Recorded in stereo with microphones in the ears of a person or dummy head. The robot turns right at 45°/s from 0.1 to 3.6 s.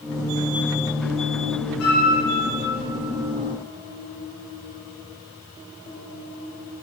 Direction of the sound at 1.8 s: 80° left.